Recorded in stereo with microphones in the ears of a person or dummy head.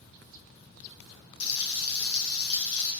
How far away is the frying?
About 1.6 m.